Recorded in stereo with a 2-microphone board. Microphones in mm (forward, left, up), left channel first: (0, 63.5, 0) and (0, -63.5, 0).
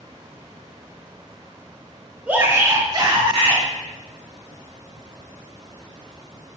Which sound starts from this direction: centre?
A shout, at 2.3 s.